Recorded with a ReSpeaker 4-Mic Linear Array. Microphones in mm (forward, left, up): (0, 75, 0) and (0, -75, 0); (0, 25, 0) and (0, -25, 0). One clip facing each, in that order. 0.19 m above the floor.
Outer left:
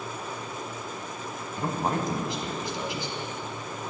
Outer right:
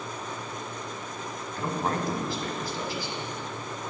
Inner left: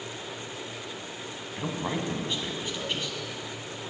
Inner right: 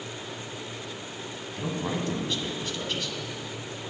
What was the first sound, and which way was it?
A man speaking, 20° left (ahead or behind).